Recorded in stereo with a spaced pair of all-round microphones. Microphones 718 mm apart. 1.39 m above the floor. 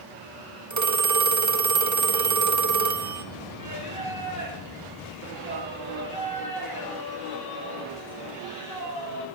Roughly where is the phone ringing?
Right.